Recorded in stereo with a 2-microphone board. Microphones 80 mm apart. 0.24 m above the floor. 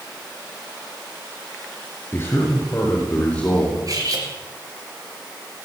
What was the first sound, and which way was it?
A man speaking, 30° left (ahead or behind).